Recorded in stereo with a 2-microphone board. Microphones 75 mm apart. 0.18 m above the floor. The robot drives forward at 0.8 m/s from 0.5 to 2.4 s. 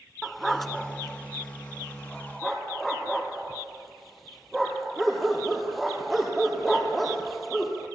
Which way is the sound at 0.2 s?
5° left (ahead or behind).